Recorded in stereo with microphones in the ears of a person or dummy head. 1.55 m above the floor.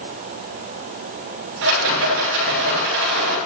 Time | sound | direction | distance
1.6 | a rattle | 70° right (ahead or behind) | 6 m